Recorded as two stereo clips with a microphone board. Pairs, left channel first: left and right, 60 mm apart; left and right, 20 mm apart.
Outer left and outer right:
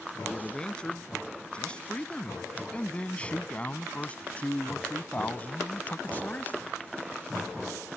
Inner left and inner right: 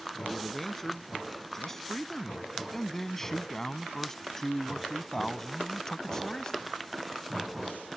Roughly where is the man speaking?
Centre.